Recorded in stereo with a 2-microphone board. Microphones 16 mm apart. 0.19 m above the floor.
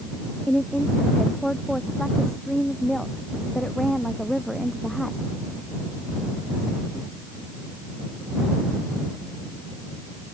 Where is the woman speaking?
25° left (ahead or behind); by 5.2 s 5° left (ahead or behind).